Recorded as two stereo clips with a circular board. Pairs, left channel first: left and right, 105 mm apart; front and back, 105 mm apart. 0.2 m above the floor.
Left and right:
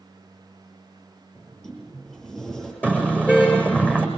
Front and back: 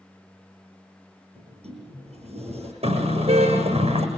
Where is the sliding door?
175° left, 9 m.